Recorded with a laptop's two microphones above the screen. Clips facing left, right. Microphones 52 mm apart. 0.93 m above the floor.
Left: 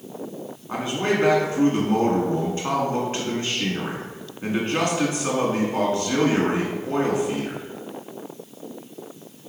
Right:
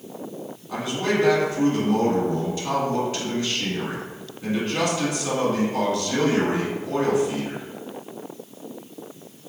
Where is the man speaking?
35° left (ahead or behind), 1.7 m.